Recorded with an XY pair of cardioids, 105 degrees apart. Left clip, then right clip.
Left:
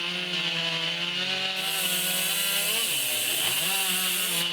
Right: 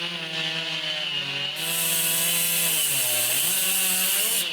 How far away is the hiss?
About 1.0 m.